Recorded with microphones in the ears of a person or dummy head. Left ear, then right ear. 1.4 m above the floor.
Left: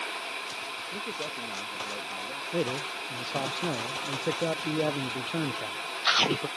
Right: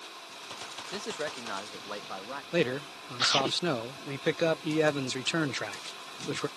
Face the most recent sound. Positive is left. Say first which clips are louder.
# right 2 dB
turn(degrees=-65)  # may be behind; listen again after turning